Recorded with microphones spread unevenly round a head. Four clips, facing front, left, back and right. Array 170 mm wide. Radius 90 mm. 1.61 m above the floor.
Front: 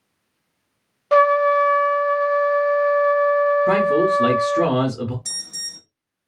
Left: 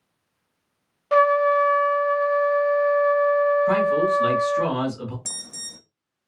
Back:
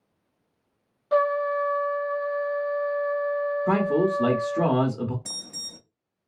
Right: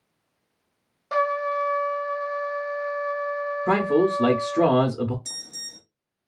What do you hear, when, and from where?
1.1 s a trumpet: 5° left, 0.5 m
3.7 s a man speaking: 60° right, 0.7 m
5.2 s an alarm: 115° left, 0.5 m